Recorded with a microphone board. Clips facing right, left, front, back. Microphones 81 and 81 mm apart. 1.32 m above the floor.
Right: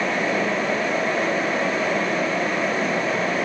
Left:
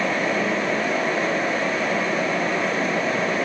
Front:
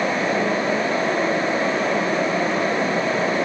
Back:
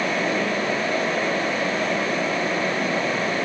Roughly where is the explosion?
No explosion in this recording.